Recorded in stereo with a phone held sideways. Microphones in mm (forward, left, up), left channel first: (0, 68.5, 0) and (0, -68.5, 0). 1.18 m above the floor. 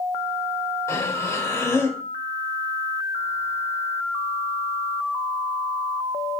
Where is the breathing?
20° left (ahead or behind), 1.7 m.